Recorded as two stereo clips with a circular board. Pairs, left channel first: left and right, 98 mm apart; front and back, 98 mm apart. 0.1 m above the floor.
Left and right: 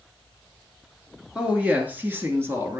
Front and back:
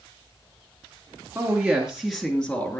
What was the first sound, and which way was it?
A woman speaking, 160° right.